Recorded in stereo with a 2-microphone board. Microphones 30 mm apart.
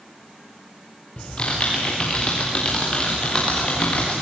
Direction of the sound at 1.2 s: 35° left (ahead or behind).